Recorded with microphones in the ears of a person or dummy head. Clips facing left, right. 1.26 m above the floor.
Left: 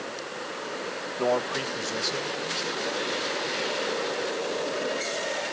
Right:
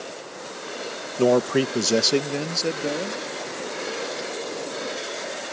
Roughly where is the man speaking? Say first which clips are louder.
Right 8 dB; right.